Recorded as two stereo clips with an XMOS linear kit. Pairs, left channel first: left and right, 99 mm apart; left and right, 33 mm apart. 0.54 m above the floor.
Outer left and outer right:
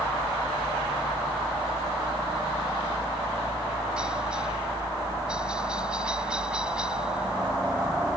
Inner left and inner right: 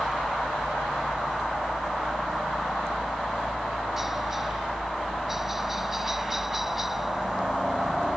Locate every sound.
0.0 s a helicopter: 10° right (ahead or behind)